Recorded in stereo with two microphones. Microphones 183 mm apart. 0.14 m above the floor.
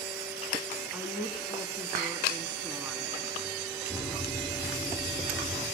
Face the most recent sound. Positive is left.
turn(degrees=5)  # may be behind; listen again after turning